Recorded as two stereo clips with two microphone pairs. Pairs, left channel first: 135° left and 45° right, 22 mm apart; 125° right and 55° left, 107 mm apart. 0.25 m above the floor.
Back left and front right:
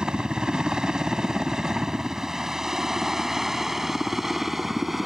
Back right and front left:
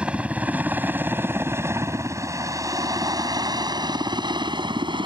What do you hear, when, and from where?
0.0 s a helicopter: 20° right; by 5.1 s 35° left